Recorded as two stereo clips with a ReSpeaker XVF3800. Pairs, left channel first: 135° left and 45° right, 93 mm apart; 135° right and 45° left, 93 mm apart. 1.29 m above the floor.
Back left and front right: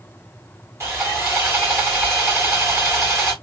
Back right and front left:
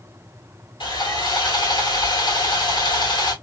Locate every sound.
0.8 s sawing: 105° right, 3.5 m